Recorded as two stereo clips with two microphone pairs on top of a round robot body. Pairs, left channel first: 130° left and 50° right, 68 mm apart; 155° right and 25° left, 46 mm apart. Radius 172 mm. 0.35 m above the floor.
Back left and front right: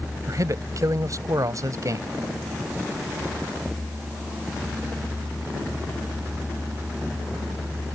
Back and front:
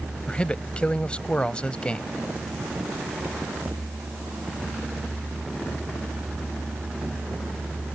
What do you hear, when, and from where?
0.3 s a man speaking: 90° right